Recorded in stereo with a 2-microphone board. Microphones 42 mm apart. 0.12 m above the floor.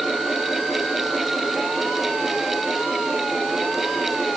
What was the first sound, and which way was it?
Only background noise.